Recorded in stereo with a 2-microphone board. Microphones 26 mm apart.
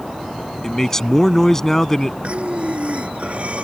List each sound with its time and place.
0.6 s a man speaking: 20° left (ahead or behind)
2.2 s breathing: 50° right (ahead or behind)